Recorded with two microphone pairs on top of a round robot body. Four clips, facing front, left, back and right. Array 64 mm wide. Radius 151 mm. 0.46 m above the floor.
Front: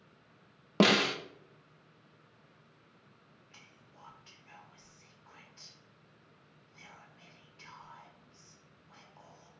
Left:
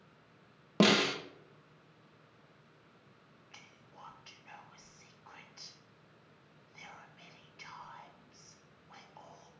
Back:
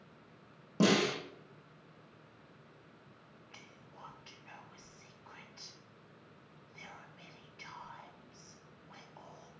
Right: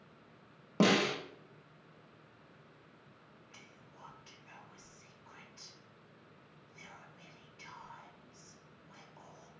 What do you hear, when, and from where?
0.8 s a snare drum: 5° left, 0.5 m
3.5 s whispering: 130° left, 0.8 m